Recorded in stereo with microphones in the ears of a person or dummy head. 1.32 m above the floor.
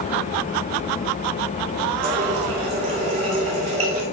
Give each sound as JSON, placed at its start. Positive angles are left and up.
{"t": 2.0, "sound": "a running tap", "side_deg": -30, "distance_m": 2.0}